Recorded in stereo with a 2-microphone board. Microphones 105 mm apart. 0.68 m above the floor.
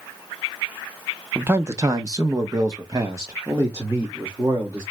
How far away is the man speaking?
About 0.8 m.